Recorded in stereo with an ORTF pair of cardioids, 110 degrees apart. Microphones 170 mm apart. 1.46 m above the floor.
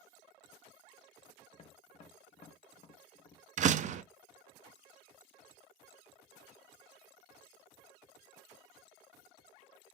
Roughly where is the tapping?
Ahead left.